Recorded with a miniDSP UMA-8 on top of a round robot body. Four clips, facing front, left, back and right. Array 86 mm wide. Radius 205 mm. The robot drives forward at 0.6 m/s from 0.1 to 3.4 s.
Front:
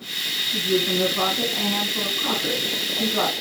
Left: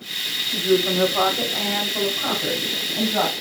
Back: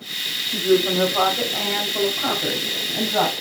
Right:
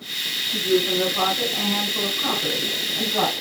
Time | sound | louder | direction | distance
0.5 | a woman speaking | left 1 dB, back 5 dB | 135° left | 1.3 m